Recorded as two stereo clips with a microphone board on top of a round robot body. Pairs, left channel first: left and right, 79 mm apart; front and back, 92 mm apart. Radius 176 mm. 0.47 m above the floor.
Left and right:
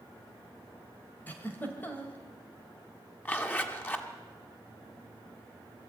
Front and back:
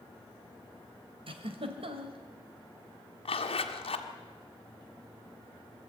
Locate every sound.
1.3 s a giggle: 160° left, 2 m
3.2 s a zipper: 20° left, 1.6 m